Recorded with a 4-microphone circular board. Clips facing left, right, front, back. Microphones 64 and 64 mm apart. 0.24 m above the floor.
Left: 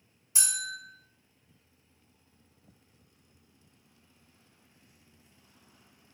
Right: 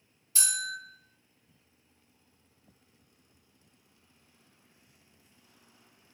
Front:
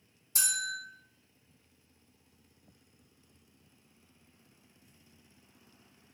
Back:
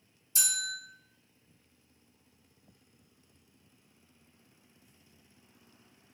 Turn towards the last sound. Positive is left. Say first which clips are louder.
# right 2 dB, front 2 dB
turn(degrees=25)